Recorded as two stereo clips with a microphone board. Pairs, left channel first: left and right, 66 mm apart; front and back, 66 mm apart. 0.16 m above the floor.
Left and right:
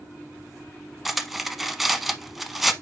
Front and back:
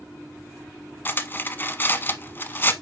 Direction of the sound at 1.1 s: 5° right.